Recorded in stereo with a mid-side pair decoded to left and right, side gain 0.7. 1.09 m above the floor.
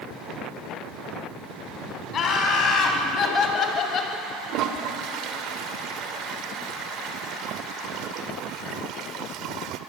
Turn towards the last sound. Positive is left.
turn(degrees=-55)